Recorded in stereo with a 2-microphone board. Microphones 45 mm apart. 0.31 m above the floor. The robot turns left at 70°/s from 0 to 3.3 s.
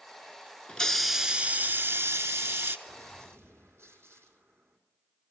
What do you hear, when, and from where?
0.7 s a hiss: 25° left, 0.6 m; by 2.8 s 120° right, 0.6 m
2.9 s a gunshot: 85° right, 3.5 m; by 4.8 s 115° right, 3.5 m